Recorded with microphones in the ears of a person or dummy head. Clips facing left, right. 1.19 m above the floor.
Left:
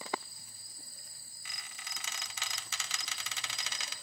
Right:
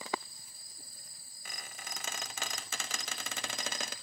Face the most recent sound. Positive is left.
turn(degrees=-45)  # may be behind; listen again after turning